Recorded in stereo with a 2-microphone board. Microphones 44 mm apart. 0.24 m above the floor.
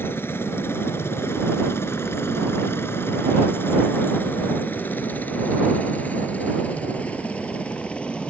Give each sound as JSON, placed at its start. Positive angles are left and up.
{"t": 0.0, "sound": "a helicopter", "side_deg": 60}